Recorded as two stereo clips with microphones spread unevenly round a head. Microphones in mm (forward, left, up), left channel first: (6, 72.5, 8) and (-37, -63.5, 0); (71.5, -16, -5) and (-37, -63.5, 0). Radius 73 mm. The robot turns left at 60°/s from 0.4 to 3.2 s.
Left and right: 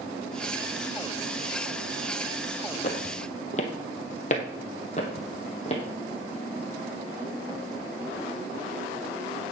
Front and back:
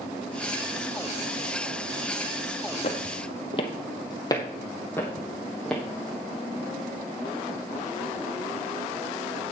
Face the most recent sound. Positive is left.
turn(degrees=115)